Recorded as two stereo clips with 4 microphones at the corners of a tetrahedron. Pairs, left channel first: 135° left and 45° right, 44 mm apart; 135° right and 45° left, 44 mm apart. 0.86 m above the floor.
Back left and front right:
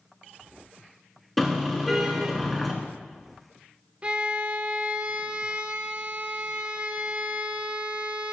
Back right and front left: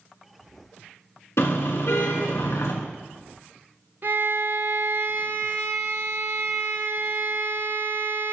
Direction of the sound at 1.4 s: 135° right.